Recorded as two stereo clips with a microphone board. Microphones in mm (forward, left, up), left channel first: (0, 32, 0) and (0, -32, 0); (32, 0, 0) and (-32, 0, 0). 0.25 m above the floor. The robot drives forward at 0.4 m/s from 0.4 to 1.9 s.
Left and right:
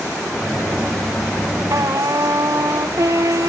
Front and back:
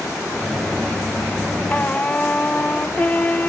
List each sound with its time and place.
1.7 s a trumpet: 65° right